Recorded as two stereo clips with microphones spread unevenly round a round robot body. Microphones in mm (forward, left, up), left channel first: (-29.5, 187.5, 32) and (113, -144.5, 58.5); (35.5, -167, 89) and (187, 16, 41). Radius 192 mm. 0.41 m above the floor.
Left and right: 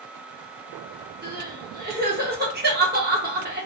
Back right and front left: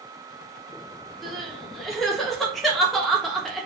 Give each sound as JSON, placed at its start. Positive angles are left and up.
{"t": 1.2, "sound": "crying", "azimuth_deg": -20, "distance_m": 1.1}